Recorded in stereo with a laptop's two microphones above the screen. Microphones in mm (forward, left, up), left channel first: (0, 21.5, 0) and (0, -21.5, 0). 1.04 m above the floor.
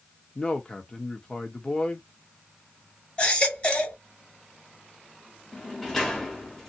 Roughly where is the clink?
No clink in this recording.